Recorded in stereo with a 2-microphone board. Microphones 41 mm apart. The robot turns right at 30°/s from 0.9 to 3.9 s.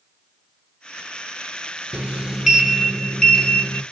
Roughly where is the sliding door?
Ahead right.